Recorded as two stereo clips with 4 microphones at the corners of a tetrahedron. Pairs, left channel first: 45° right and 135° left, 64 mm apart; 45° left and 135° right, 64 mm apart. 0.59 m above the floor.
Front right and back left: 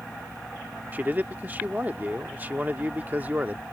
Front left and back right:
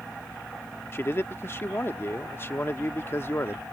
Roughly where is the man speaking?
Left.